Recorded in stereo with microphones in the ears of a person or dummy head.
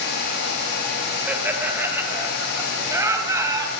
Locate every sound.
1.3 s laughter: 15° right (ahead or behind), 6.5 m; by 3.7 s 20° right (ahead or behind), 9.5 m